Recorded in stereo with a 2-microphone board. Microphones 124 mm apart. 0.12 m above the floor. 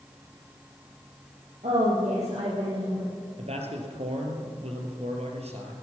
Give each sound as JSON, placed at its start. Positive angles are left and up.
{"t": 1.6, "sound": "a woman speaking", "side_deg": -65, "distance_m": 4.0}
{"t": 3.4, "sound": "a man speaking", "side_deg": -60, "distance_m": 2.5}